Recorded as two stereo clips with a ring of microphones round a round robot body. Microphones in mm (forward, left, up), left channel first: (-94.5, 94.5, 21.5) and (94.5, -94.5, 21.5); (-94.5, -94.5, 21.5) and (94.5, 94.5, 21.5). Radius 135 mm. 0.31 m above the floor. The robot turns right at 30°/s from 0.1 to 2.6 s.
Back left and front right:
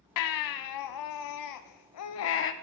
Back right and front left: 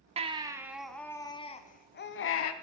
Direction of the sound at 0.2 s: 115° left.